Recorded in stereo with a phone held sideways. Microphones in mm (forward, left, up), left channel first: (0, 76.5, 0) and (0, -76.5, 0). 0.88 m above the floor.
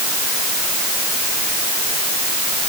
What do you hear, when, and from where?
Only background noise.